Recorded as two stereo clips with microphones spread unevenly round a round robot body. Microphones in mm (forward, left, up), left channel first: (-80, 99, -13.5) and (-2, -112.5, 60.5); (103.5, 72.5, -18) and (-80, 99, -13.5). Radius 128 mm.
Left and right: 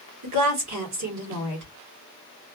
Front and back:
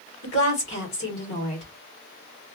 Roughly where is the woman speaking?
Ahead right.